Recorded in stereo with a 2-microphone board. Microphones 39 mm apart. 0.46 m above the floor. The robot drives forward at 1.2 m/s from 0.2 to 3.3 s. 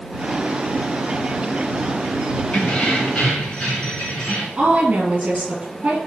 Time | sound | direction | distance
2.5 | keys jangling | 30° left (ahead or behind) | 3 m
4.6 | a woman speaking | 40° right (ahead or behind) | 5 m